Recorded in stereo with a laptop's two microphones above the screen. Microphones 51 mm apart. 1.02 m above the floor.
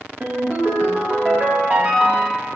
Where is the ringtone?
35° right (ahead or behind), 0.6 m.